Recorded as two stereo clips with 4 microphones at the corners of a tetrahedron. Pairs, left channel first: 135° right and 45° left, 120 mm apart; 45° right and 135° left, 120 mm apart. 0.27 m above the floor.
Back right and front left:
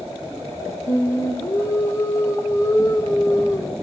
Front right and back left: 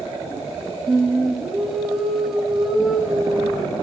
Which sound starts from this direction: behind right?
Singing, at 0.9 s.